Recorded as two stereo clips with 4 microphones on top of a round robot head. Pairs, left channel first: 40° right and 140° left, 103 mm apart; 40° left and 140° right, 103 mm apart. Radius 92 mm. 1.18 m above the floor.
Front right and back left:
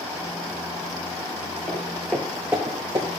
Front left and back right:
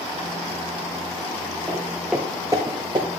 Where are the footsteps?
20° right, 1.3 m; by 3.1 s straight behind, 1.5 m.